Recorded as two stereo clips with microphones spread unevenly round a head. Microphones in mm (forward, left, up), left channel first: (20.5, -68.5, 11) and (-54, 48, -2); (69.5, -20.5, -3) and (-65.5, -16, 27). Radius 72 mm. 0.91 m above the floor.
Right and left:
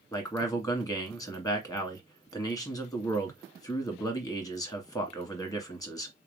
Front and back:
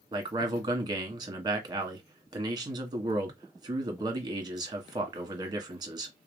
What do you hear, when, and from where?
0.1 s a man speaking: 120° right, 1.4 m